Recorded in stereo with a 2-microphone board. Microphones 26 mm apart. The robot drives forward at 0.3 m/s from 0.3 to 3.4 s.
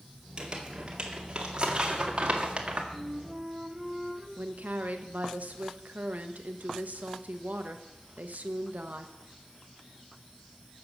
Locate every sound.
0.4 s crumpling: 30° right (ahead or behind), 2 m; by 2.8 s 45° right (ahead or behind), 1.6 m
2.9 s a flute: 20° right (ahead or behind), 1.7 m
4.4 s a woman speaking: 85° right, 1.2 m